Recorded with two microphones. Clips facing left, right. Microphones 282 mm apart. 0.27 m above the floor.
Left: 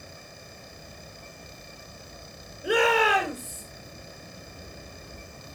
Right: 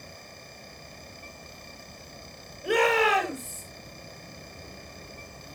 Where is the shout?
10° left (ahead or behind), 5.5 m.